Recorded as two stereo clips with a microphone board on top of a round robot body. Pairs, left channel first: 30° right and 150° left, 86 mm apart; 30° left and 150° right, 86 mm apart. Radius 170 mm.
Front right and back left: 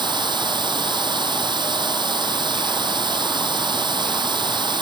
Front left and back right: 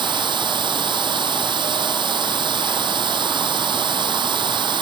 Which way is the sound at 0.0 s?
Straight behind.